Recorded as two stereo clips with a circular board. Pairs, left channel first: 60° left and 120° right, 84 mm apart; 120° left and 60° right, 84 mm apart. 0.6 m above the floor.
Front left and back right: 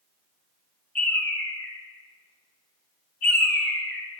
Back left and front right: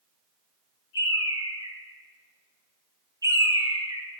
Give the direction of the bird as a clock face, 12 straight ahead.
1 o'clock.